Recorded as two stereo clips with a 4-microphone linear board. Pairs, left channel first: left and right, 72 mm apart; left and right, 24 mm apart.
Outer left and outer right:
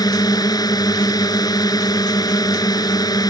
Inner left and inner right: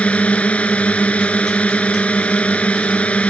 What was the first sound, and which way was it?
A drone, 65° left (ahead or behind).